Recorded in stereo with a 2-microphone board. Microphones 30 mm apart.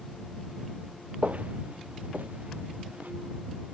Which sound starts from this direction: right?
Footsteps, at 1.2 s.